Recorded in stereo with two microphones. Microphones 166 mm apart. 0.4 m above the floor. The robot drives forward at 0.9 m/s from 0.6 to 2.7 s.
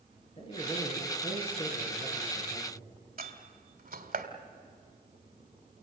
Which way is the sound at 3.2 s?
60° right (ahead or behind).